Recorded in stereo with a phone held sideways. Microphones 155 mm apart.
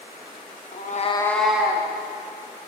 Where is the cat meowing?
60° left (ahead or behind), 0.6 m; by 1.9 s 15° right (ahead or behind), 1.2 m.